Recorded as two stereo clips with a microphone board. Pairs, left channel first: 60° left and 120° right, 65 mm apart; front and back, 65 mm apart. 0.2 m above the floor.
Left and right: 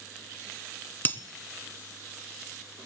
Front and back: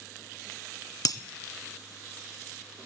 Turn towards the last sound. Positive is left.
turn(degrees=5)